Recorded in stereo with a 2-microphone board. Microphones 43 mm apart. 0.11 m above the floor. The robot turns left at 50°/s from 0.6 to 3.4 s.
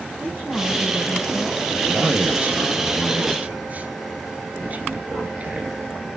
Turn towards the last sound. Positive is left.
turn(degrees=-110)